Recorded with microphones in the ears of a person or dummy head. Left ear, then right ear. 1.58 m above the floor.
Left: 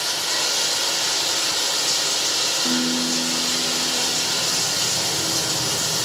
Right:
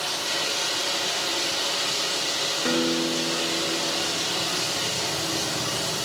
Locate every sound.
0.0 s running water: 70° left (ahead or behind), 4.5 m
2.6 s a guitar: 40° right (ahead or behind), 5.5 m